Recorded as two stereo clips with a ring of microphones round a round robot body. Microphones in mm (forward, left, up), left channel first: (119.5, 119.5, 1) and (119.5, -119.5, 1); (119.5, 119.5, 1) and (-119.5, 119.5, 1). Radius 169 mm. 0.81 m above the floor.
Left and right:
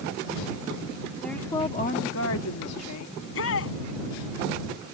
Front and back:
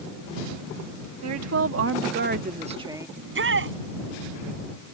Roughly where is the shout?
Behind left.